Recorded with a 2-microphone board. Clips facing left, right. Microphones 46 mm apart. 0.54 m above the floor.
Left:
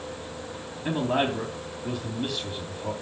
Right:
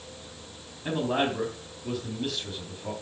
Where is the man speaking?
10° left (ahead or behind), 3.5 m.